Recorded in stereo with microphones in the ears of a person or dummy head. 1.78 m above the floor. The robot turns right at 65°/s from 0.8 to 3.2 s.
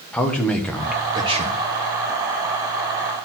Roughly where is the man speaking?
Behind.